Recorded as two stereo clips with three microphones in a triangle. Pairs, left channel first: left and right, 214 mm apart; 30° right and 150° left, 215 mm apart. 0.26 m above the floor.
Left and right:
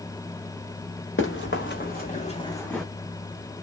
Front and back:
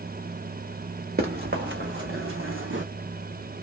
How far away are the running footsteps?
About 1.5 m.